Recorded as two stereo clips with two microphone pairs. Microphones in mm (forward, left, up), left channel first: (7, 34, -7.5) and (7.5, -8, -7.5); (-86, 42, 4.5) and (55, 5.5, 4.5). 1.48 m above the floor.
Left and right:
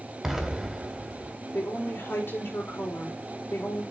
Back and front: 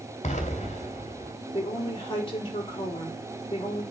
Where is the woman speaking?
115° left, 4.5 m.